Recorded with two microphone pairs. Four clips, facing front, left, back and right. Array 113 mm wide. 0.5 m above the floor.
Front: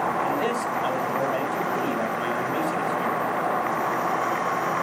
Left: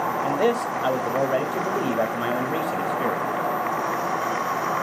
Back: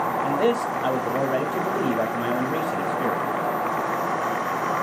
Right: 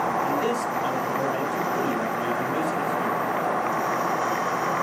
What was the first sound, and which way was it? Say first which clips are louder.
A man speaking: left 3 dB, back 3 dB; 105° left.